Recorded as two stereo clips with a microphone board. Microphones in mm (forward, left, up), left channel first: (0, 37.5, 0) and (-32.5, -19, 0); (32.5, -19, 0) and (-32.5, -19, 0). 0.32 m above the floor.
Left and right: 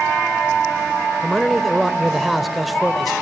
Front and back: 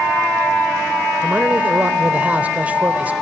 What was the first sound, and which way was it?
A man speaking, 150° left.